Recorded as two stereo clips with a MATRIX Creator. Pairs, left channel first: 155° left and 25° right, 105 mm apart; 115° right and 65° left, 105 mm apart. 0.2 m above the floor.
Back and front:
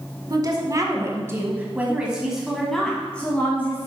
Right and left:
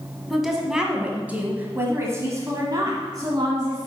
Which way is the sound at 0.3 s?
20° right.